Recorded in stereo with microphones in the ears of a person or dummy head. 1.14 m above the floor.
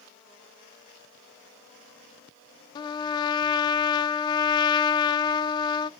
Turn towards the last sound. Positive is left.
turn(degrees=25)  # may be behind; listen again after turning